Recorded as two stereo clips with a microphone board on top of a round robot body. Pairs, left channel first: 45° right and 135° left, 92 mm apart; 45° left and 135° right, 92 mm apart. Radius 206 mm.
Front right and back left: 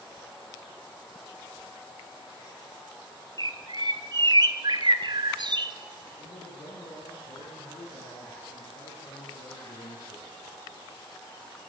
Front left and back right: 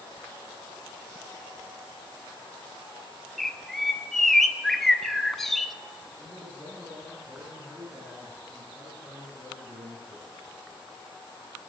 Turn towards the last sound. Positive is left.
turn(degrees=-65)